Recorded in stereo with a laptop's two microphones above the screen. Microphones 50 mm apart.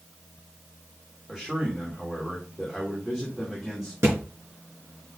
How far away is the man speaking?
About 2.5 m.